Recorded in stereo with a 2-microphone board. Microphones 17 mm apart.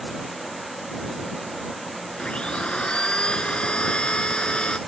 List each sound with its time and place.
2.2 s a blender: 75° left (ahead or behind)